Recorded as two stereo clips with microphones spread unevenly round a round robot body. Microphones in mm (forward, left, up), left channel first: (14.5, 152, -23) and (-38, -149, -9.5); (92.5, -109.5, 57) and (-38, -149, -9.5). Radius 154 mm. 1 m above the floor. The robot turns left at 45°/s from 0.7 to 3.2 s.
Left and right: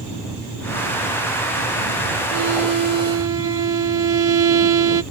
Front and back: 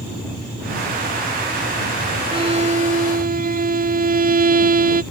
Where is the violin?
110° right; by 5.0 s 150° right.